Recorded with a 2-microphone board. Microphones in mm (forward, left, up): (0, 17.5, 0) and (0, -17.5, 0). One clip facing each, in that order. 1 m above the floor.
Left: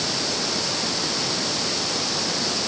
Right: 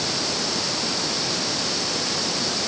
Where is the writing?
I don't hear writing.